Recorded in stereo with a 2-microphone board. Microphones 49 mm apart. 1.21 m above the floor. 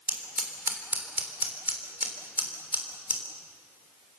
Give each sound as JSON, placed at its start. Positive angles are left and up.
{"t": 0.1, "sound": "scissors", "side_deg": -35, "distance_m": 3.5}